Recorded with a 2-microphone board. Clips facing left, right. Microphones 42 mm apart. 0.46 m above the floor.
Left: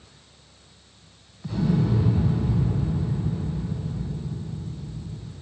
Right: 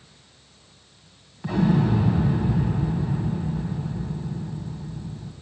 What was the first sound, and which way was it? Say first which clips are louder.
An explosion: right 3 dB; 70° right (ahead or behind).